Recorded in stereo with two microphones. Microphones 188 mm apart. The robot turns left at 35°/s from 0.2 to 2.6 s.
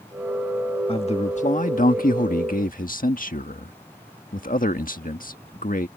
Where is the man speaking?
140° left; by 5.9 s 80° left.